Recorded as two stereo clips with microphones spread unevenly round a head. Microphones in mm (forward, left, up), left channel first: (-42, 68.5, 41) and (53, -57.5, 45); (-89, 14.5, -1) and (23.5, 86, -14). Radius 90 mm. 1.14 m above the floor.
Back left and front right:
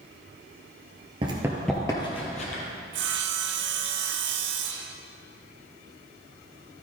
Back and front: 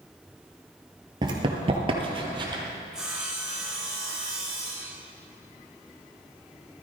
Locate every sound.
1.2 s running footsteps: 15° right, 1.3 m; by 2.6 s 90° left, 2 m
2.9 s sawing: 55° right, 0.8 m